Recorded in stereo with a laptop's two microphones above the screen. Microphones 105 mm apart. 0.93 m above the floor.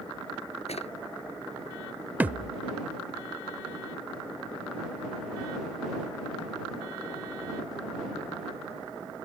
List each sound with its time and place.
0.7 s a drawer: 80° left
2.2 s a thud: 15° right (ahead or behind)